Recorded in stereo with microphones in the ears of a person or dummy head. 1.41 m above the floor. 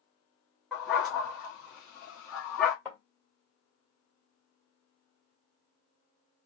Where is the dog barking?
5° left (ahead or behind), 1.2 m.